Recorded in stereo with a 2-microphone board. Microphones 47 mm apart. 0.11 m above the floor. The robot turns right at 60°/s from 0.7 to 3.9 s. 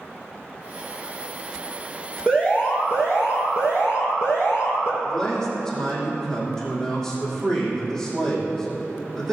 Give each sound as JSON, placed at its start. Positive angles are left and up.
{"t": 2.3, "sound": "an alarm", "azimuth_deg": 15, "distance_m": 4.0}
{"t": 5.0, "sound": "a man speaking", "side_deg": 10, "distance_m": 5.0}